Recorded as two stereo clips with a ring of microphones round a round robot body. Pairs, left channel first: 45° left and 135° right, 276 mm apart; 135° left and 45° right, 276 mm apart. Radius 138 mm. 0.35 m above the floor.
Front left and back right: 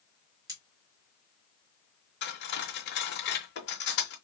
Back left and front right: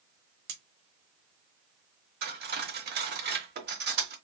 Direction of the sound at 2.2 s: Straight ahead.